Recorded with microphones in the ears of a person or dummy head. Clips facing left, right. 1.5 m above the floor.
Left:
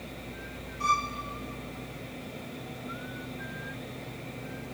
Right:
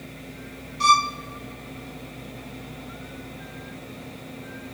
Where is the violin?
75° right (ahead or behind), 0.6 m.